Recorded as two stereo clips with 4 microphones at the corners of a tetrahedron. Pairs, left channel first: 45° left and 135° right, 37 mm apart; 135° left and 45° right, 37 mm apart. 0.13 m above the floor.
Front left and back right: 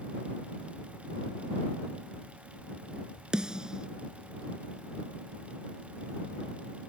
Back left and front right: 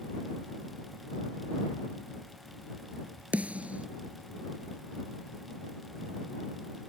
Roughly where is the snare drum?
Right.